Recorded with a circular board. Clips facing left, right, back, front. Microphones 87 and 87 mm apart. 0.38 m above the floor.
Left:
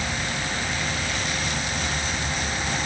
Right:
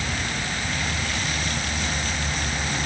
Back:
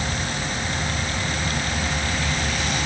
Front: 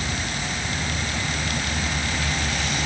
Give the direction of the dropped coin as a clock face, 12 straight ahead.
I don't hear a dropped coin.